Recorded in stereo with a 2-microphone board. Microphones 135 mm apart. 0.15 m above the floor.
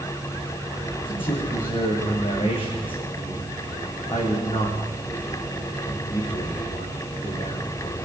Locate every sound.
1.1 s a man speaking: 45° left (ahead or behind), 10 m